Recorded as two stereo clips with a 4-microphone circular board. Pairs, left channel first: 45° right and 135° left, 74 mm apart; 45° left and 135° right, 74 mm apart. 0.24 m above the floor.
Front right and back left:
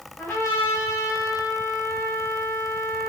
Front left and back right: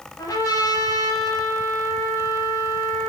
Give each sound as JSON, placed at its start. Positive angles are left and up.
{"t": 0.2, "sound": "a trumpet", "azimuth_deg": 15, "distance_m": 6.5}